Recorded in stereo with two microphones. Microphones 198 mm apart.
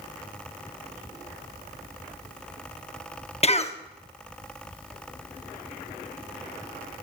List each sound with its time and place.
3.4 s a cough: 35° left (ahead or behind), 0.8 m